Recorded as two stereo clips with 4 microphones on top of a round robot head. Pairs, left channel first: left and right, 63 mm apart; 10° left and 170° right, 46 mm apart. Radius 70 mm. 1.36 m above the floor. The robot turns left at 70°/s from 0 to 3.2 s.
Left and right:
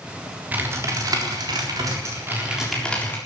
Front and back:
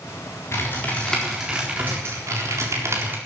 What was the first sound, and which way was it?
Typing on a keyboard, 25° right.